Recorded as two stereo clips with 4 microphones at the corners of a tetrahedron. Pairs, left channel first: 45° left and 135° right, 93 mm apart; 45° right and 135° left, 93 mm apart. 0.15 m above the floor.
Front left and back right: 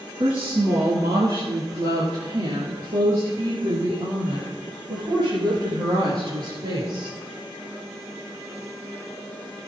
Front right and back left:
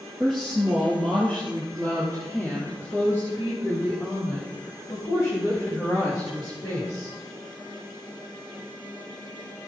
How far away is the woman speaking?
About 3 m.